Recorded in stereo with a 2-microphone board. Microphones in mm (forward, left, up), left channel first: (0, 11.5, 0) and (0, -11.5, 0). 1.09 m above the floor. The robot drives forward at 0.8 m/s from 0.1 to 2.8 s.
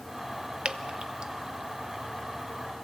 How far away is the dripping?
About 0.7 m.